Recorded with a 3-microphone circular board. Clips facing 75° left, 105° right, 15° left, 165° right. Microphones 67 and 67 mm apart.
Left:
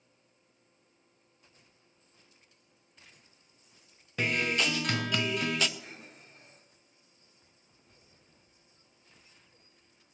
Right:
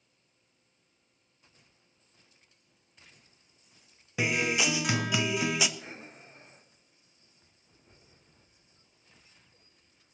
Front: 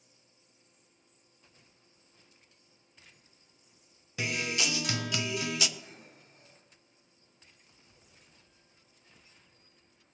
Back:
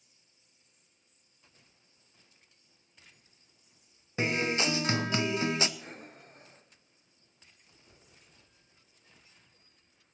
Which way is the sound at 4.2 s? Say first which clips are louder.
Right 1 dB, back 4 dB; 175° right.